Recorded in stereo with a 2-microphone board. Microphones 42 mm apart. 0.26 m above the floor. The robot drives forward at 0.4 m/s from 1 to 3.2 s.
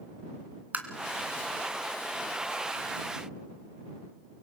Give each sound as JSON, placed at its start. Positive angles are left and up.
{"t": 0.7, "sound": "tapping", "side_deg": -40, "distance_m": 2.0}